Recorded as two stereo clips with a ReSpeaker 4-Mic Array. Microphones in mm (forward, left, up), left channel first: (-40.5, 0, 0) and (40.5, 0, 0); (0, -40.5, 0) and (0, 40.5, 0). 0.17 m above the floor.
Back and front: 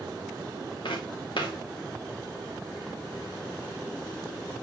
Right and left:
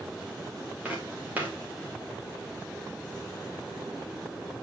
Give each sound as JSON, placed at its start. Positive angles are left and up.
{"t": 0.8, "sound": "footsteps", "azimuth_deg": 160, "distance_m": 2.5}